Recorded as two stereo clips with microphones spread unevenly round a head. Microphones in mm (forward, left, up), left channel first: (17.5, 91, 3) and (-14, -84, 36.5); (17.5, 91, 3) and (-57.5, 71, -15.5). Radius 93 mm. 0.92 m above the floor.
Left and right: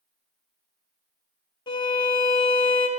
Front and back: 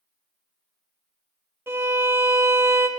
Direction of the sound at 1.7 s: 140° left.